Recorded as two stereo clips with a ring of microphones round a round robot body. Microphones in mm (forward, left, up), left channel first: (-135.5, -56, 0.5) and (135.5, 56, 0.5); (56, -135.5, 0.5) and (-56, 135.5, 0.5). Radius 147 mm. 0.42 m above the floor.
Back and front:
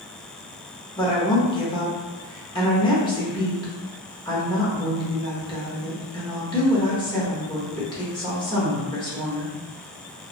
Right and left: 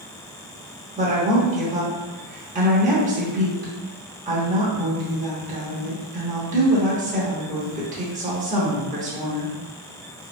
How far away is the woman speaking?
About 0.8 m.